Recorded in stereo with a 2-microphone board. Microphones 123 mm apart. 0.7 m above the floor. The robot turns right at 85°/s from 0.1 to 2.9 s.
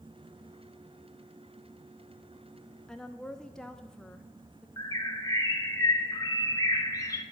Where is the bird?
25° left (ahead or behind), 0.9 m.